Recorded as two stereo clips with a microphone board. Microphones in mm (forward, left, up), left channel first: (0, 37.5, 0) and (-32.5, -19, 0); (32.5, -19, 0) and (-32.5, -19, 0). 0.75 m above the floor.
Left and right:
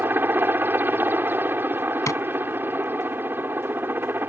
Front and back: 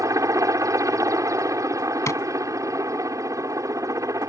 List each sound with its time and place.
0.0 s a helicopter: 170° right
2.1 s tapping: 30° left